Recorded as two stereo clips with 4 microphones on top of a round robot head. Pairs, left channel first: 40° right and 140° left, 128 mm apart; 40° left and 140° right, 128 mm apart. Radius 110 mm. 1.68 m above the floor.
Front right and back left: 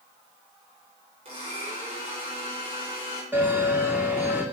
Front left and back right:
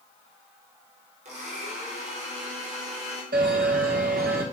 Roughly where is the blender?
Behind.